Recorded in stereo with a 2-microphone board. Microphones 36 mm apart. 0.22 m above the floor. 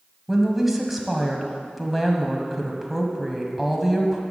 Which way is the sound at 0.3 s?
Centre (ahead or behind).